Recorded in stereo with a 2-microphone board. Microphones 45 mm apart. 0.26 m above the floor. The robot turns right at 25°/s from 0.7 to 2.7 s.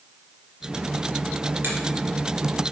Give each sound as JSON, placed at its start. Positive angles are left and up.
{"t": 1.6, "sound": "a finger snap", "side_deg": -50, "distance_m": 2.5}